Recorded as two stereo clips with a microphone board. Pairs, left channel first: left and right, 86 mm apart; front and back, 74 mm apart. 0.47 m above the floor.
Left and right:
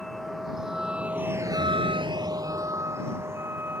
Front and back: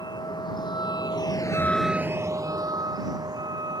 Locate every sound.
0.0 s a vehicle: straight ahead; by 3.8 s 155° right